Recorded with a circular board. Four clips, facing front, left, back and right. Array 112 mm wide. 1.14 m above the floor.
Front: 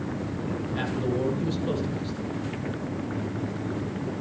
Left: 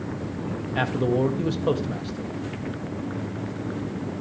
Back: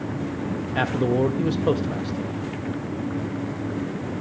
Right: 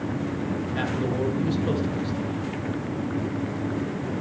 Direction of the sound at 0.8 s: 155° left.